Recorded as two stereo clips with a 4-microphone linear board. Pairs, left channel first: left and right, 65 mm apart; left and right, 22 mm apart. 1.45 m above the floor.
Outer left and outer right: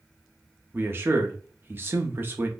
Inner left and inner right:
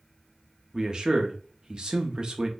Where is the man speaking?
35° right (ahead or behind), 0.6 m.